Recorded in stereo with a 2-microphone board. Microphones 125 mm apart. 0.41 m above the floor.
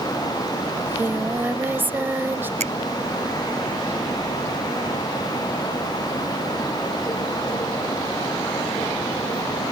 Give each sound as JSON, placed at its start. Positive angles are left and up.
{"t": 0.8, "sound": "singing", "side_deg": -20}
{"t": 2.6, "sound": "a finger snap", "side_deg": -70}